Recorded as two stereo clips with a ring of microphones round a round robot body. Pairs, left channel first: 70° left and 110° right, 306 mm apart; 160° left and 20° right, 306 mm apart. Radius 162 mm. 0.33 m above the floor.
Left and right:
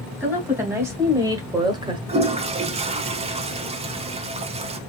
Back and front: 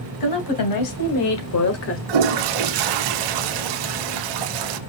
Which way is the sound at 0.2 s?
165° left.